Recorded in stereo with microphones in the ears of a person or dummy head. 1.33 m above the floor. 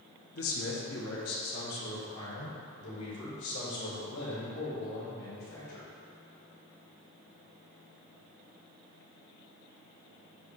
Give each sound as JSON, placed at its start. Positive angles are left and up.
{"t": 0.3, "sound": "a man speaking", "side_deg": 60, "distance_m": 1.2}